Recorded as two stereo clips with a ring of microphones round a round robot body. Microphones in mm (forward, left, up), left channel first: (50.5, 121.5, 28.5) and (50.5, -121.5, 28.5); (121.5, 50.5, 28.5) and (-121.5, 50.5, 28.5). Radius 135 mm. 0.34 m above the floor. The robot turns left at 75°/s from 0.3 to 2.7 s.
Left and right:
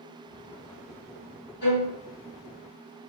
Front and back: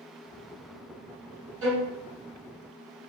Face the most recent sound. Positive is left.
turn(degrees=65)